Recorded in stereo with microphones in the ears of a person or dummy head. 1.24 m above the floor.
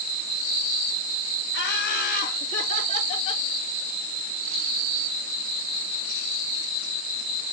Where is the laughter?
55° left (ahead or behind), 2.5 m; by 3.5 s 35° left (ahead or behind), 2.5 m.